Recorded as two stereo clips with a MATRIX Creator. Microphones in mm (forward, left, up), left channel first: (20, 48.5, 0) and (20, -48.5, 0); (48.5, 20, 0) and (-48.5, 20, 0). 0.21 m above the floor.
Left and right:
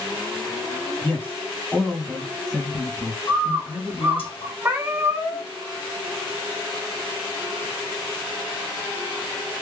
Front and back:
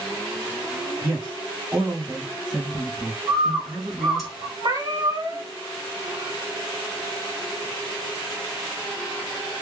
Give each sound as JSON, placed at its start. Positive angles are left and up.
{"t": 1.0, "sound": "a man speaking", "azimuth_deg": 125, "distance_m": 1.7}
{"t": 3.3, "sound": "a bird", "azimuth_deg": 90, "distance_m": 1.7}
{"t": 4.6, "sound": "a cat meowing", "azimuth_deg": -145, "distance_m": 1.0}